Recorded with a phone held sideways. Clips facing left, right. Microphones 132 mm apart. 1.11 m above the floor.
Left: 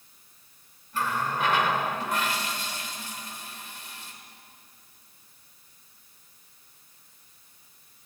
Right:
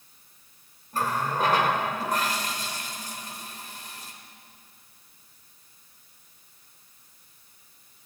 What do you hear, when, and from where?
0.9 s a running tap: 40° right (ahead or behind), 3 m